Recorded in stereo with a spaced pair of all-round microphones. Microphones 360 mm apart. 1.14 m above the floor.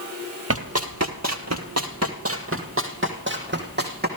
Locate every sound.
0.5 s running footsteps: 40° right (ahead or behind), 1.6 m; by 4.1 s 25° right (ahead or behind), 3.5 m